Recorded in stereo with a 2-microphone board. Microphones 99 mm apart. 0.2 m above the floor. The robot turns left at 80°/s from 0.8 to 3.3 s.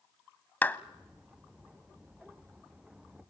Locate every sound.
0.6 s a clap: 20° left (ahead or behind), 0.7 m